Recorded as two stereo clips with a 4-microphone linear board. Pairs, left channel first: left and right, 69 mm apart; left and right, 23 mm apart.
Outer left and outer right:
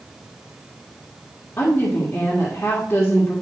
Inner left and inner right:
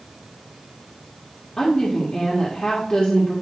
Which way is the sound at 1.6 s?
35° left (ahead or behind).